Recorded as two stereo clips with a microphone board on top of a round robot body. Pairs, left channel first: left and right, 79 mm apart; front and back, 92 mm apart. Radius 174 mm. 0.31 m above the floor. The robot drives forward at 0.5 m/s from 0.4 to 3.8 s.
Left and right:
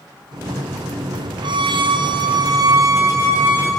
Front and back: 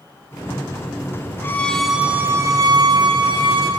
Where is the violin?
65° right, 0.5 m; by 3.7 s 155° right, 1.1 m.